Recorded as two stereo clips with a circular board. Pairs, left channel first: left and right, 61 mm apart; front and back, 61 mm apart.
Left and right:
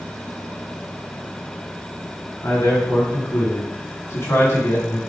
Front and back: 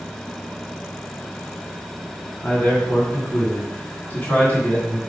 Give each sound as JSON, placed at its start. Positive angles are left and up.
{"t": 2.4, "sound": "a man speaking", "azimuth_deg": 55, "distance_m": 3.0}